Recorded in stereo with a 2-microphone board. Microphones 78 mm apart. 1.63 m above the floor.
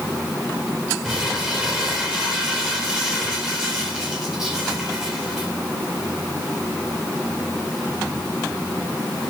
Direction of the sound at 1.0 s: 10° right (ahead or behind).